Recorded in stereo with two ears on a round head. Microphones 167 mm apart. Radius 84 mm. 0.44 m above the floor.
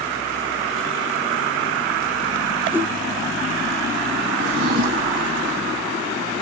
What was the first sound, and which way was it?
A whoosh, 10° right (ahead or behind).